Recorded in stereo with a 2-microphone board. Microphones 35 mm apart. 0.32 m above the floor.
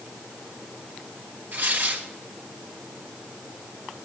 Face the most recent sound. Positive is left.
turn(degrees=-65)  # may be behind; listen again after turning